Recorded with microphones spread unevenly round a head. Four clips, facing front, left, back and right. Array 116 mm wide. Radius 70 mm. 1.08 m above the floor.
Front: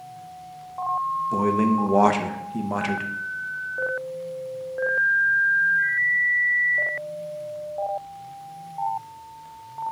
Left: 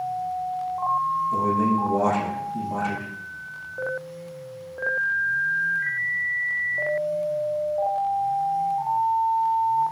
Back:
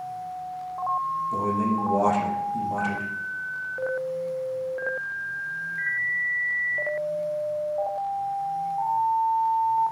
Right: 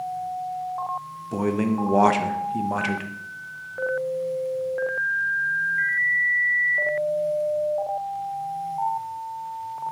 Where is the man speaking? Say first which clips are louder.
Right 2 dB, front 5 dB; 40° right, 1.0 m.